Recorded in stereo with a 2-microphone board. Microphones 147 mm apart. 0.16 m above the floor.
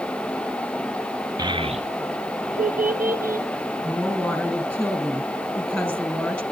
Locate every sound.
1.4 s a child speaking: 30° right (ahead or behind), 1.1 m; by 3.5 s 75° right (ahead or behind), 2.5 m
3.8 s a woman speaking: 5° left (ahead or behind), 2.5 m